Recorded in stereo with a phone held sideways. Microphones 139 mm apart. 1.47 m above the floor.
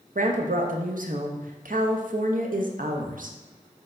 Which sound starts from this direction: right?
A woman speaking, at 0.1 s.